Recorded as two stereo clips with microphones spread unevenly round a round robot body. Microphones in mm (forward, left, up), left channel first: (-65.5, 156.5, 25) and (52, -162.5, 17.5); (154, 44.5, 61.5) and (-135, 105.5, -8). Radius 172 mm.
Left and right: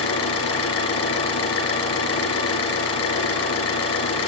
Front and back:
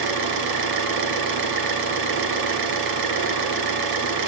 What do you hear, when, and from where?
0.0 s an engine running: 165° left, 6 m